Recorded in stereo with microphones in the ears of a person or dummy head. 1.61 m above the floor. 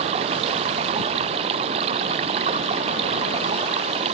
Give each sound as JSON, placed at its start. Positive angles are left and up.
{"t": 0.0, "sound": "running water", "side_deg": -30}